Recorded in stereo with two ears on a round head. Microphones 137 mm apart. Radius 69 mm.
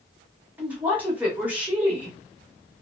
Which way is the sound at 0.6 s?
10° right (ahead or behind).